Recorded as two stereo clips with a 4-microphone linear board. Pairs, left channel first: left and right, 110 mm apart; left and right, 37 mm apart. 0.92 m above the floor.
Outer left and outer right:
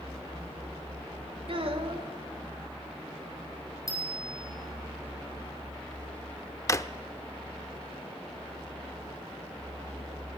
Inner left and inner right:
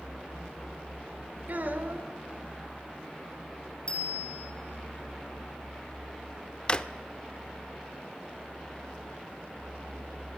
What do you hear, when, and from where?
1.5 s a child speaking: 55° right (ahead or behind), 2 m
3.9 s a bicycle bell: 30° left (ahead or behind), 6.5 m
6.7 s a drawer: 25° left (ahead or behind), 0.6 m